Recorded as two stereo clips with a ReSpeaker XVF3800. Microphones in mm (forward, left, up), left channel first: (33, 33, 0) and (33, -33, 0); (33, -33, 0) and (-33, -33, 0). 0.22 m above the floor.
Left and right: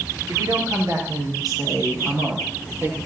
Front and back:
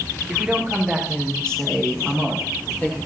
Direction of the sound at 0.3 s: 95° right.